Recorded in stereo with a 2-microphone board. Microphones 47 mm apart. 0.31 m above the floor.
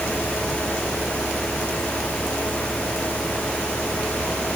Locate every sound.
Only background noise.